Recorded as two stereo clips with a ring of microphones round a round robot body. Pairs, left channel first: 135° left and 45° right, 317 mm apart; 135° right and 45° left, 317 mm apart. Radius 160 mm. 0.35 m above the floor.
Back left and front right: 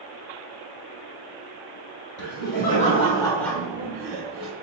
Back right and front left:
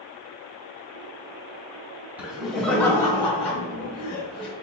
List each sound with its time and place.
2.2 s laughter: 125° left, 1.1 m; by 4.5 s 100° right, 1.1 m